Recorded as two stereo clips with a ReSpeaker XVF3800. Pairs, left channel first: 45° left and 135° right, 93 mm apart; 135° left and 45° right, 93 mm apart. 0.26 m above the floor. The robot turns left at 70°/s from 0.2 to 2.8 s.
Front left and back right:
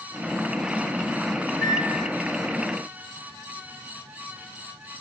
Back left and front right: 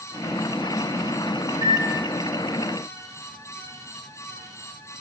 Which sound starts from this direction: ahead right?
A microwave, at 1.5 s.